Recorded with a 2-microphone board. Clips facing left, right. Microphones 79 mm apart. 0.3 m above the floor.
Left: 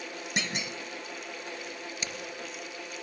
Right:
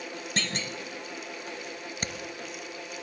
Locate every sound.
0.4 s a clunk: 15° left (ahead or behind), 0.7 m
2.0 s hammering: 50° right (ahead or behind), 2 m